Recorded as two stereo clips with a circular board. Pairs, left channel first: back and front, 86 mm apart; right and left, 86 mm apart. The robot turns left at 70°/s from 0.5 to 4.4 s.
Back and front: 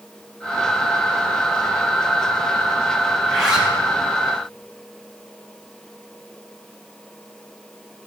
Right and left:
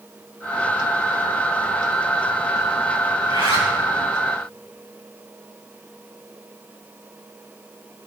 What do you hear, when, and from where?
3.2 s a zipper: 115° left, 5.5 m; by 3.7 s 75° left, 5.5 m